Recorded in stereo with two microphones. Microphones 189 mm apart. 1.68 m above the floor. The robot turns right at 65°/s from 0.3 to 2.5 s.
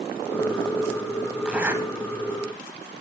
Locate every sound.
1.4 s a zipper: 5° right (ahead or behind), 1.5 m; by 1.8 s 10° right (ahead or behind), 1.5 m